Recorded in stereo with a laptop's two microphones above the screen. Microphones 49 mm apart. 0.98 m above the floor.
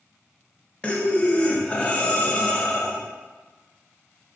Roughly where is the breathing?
Centre.